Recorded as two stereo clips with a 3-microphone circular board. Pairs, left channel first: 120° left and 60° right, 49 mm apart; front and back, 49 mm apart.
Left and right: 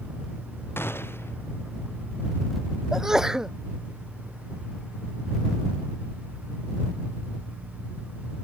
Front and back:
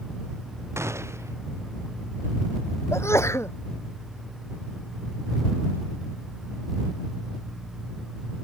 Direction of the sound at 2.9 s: 15° left.